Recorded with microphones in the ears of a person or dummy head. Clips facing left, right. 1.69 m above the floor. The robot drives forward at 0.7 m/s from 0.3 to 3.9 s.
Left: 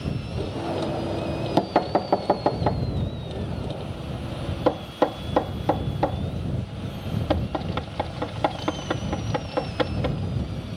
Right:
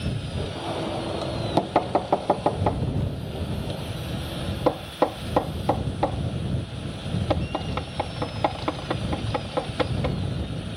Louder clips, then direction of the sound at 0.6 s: Left 3 dB; 15° left (ahead or behind).